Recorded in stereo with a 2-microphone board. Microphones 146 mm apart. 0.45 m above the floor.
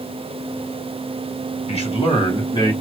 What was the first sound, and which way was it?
A man speaking, 45° left (ahead or behind).